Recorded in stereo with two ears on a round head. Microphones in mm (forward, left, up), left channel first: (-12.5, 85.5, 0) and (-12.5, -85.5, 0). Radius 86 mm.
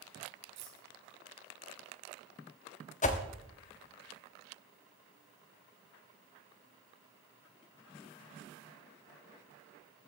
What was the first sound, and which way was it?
Keys jangling, 35° right (ahead or behind).